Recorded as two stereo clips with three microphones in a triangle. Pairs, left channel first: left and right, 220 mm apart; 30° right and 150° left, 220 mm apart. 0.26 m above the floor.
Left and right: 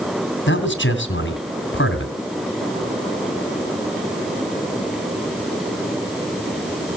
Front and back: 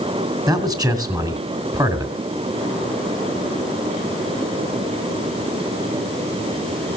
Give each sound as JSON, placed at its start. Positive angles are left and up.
{"t": 0.5, "sound": "a man speaking", "azimuth_deg": 80, "distance_m": 3.0}